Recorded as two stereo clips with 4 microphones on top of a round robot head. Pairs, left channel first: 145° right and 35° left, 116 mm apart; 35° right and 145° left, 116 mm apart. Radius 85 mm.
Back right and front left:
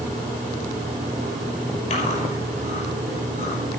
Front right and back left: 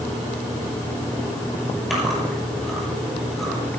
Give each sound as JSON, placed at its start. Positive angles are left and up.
{"t": 1.9, "sound": "chewing", "azimuth_deg": -125, "distance_m": 6.5}